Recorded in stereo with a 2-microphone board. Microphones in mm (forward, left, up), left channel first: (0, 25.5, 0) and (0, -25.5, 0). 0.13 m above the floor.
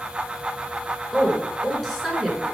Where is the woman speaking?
Centre (ahead or behind), 1.6 m.